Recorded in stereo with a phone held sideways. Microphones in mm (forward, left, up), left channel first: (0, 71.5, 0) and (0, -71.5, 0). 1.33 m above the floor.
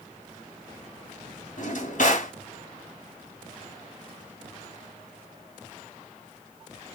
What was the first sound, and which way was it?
A drawer, 60° left (ahead or behind).